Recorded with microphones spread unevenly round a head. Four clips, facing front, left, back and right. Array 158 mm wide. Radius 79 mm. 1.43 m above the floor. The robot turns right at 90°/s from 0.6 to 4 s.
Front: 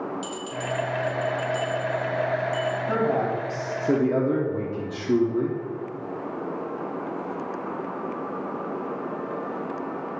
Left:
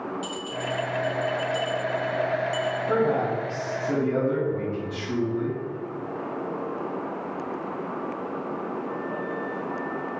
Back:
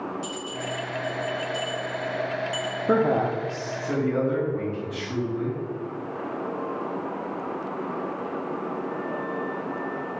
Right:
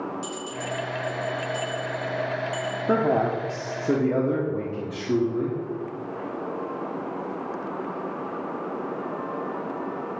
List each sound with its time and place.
0.2 s a bell: 30° right, 2.0 m; by 2.8 s 170° left, 2.0 m
2.9 s a man speaking: 135° right, 1.1 m; by 5.6 s 35° right, 1.1 m